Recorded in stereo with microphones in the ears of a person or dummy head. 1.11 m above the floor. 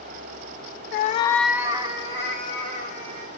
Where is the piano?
No piano in this recording.